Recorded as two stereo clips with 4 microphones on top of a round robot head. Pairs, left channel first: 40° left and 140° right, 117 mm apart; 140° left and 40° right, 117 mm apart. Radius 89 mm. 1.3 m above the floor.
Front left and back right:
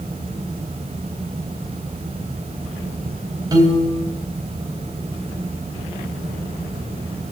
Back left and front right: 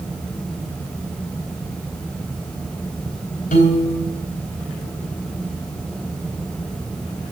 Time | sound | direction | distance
3.5 | a piano | 160° left | 3 m